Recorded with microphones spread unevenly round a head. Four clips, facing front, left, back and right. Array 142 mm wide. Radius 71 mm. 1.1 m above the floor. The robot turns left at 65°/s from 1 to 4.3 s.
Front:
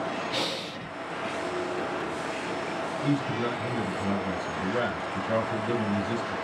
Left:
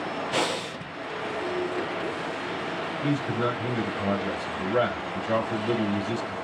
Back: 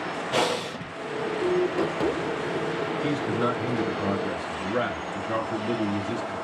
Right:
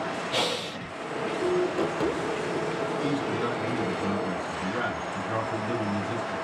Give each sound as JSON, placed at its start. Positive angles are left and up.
{"t": 0.3, "sound": "breathing", "azimuth_deg": 165, "distance_m": 1.0}
{"t": 3.0, "sound": "a man speaking", "azimuth_deg": 180, "distance_m": 2.5}